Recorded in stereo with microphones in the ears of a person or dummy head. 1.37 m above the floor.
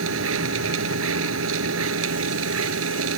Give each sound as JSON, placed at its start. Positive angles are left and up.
{"t": 0.0, "sound": "a machine running", "side_deg": -85}